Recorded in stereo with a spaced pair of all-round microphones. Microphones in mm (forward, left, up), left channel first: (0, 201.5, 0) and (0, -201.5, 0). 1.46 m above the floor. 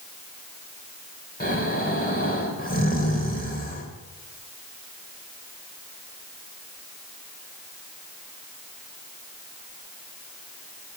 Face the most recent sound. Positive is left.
turn(degrees=20)  # may be behind; listen again after turning